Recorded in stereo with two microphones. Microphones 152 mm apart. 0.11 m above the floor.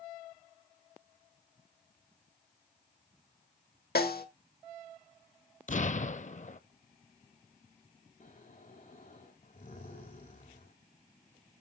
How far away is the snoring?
About 3 m.